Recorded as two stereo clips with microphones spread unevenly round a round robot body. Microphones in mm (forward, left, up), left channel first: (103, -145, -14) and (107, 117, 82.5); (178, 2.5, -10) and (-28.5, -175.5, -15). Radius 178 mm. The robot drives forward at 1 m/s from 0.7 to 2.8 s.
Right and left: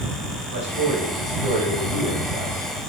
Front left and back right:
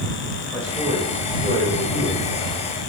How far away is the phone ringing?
No phone ringing in this recording.